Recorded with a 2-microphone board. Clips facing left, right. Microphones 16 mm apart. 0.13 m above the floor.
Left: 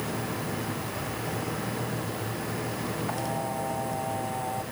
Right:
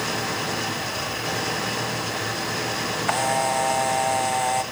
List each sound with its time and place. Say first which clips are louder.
0.0 s an engine running: right 6 dB; 65° right (ahead or behind)
3.1 s a camera shutter: right 13 dB; 80° right